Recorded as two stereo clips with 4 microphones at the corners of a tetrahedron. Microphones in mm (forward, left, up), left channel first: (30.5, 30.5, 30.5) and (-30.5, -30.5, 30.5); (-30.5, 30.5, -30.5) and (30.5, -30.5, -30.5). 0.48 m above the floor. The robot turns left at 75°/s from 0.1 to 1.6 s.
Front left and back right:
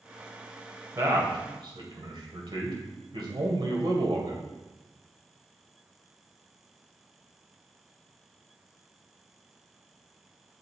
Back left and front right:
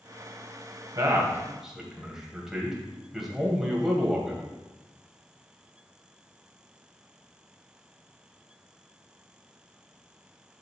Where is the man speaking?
80° right, 1.9 m; by 4.4 s 130° right, 1.9 m.